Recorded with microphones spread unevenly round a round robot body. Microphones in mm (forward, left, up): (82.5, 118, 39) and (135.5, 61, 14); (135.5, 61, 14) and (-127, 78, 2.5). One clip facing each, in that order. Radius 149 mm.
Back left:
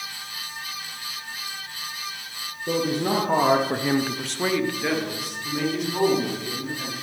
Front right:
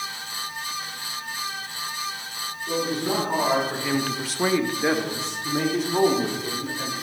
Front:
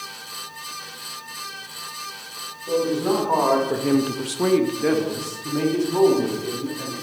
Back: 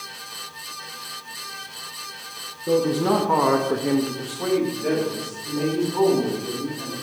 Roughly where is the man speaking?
Behind.